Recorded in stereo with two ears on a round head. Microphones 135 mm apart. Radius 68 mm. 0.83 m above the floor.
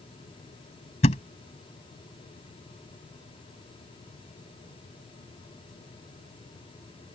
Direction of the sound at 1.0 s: 45° left (ahead or behind).